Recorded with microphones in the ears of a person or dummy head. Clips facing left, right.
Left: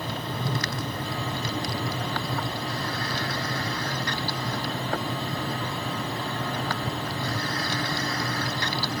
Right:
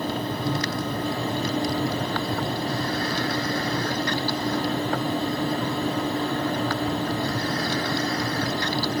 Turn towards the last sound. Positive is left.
No sound to turn to.